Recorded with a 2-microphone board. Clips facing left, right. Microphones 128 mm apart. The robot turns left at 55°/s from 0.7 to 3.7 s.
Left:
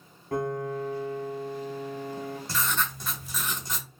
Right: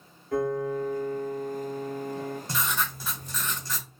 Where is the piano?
120° left, 1.4 m; by 2.4 s 25° left, 1.4 m.